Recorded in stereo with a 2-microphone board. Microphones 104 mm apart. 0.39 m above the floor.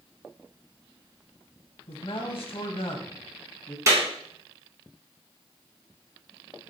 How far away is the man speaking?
About 2 m.